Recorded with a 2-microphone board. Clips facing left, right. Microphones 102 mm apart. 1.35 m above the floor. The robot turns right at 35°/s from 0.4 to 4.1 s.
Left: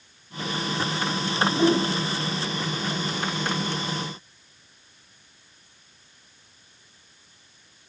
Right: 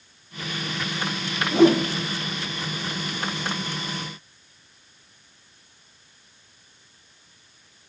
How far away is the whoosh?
About 1.3 m.